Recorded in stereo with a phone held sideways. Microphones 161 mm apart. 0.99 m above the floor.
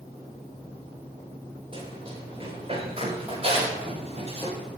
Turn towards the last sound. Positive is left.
turn(degrees=-40)  # may be behind; listen again after turning